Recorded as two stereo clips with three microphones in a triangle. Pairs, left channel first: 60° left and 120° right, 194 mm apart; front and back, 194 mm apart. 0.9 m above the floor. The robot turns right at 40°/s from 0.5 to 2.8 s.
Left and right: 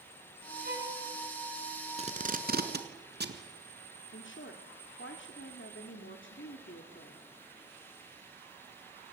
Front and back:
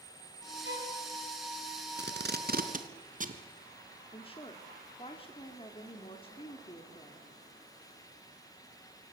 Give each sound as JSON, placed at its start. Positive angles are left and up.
{"t": 0.6, "sound": "a violin", "azimuth_deg": -160, "distance_m": 5.5}
{"t": 2.0, "sound": "tape being pulled", "azimuth_deg": -170, "distance_m": 1.7}
{"t": 4.1, "sound": "a woman speaking", "azimuth_deg": 60, "distance_m": 1.8}